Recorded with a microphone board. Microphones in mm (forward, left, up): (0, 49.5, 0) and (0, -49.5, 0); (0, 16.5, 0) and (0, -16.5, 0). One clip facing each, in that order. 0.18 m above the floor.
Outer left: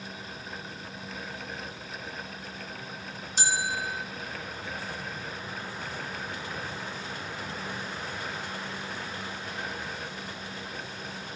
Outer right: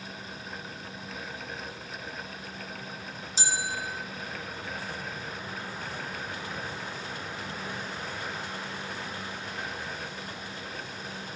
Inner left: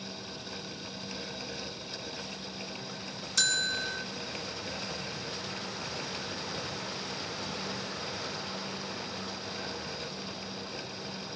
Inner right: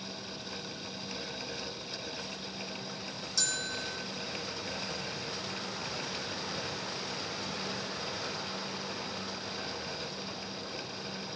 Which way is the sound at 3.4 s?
65° left (ahead or behind).